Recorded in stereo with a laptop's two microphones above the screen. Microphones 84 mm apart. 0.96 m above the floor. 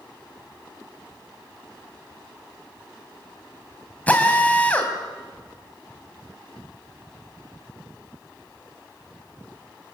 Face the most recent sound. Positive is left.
turn(degrees=15)  # may be behind; listen again after turning